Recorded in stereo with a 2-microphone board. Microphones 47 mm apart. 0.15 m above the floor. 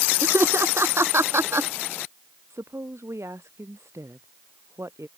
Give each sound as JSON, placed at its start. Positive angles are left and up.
{"t": 0.2, "sound": "laughter", "side_deg": -65}
{"t": 2.5, "sound": "a woman speaking", "side_deg": -80}